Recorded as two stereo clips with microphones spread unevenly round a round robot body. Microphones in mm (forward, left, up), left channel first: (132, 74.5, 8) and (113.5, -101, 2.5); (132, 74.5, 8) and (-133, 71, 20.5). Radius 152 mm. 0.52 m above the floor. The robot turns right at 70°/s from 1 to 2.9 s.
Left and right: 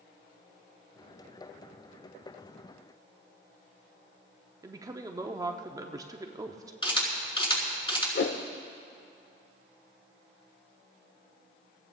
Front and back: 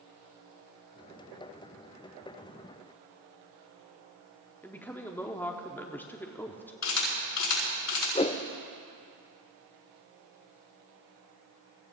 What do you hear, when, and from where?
4.6 s a woman speaking: 65° right, 0.8 m
6.8 s a camera shutter: 20° left, 7 m
8.2 s a whoosh: 70° left, 0.7 m